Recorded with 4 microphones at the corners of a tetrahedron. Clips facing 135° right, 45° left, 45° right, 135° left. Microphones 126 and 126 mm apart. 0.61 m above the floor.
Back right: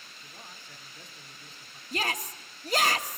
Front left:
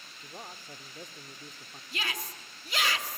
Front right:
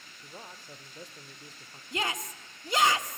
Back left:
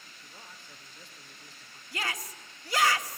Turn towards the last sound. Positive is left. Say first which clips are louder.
# back right 6 dB, front right 3 dB
turn(degrees=-105)